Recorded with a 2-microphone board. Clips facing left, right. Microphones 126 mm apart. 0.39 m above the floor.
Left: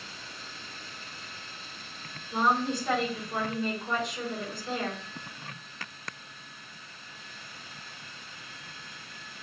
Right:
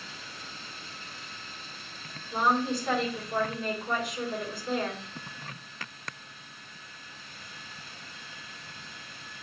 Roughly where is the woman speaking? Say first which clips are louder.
Even; centre.